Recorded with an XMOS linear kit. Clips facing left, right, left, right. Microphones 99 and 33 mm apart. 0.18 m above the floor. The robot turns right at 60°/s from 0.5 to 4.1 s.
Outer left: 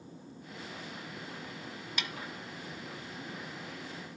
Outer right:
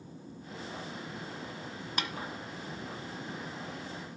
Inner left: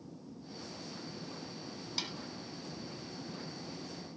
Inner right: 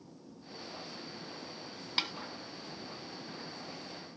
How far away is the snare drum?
About 1.2 m.